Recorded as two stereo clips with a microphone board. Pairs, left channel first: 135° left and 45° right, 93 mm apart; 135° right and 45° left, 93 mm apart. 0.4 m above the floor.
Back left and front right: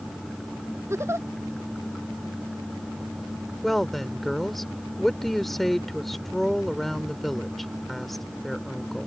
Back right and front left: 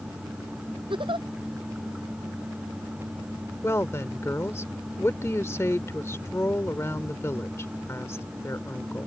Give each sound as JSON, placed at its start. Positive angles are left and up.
{"t": 0.9, "sound": "a giggle", "azimuth_deg": 15}
{"t": 3.6, "sound": "a woman speaking", "azimuth_deg": -140}